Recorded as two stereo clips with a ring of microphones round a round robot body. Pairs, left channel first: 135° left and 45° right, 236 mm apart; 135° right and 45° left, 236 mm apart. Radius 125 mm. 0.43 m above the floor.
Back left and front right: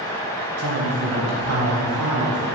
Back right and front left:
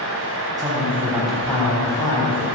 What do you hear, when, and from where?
0.6 s a man speaking: 30° right, 3.5 m; by 2.5 s 70° right, 4 m